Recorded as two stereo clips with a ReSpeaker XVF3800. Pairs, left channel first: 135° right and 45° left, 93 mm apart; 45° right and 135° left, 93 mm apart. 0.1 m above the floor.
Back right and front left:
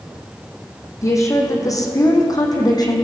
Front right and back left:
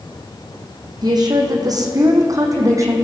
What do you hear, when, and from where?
1.0 s a woman speaking: 175° left, 4.5 m; by 3.0 s 170° right, 4 m